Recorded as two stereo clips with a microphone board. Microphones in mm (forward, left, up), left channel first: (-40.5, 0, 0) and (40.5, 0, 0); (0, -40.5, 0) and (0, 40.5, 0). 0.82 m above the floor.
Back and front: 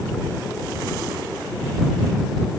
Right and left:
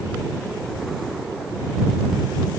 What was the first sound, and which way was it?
Only background noise.